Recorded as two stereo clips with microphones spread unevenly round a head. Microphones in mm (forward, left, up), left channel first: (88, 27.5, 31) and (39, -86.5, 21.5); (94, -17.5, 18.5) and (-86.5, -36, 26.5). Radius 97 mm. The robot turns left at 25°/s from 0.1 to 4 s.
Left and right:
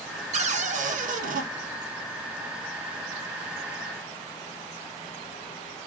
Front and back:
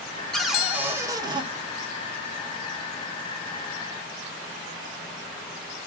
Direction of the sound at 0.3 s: 80° right.